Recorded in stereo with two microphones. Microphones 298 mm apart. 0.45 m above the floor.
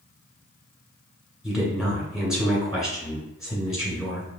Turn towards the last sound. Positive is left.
turn(degrees=0)  # may be behind; listen again after turning